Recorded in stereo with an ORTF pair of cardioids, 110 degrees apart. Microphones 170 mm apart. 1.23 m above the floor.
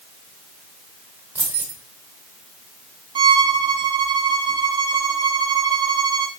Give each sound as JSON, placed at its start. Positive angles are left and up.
{"t": 1.4, "sound": "keys jangling", "azimuth_deg": -10, "distance_m": 1.2}
{"t": 3.1, "sound": "a violin", "azimuth_deg": -25, "distance_m": 0.6}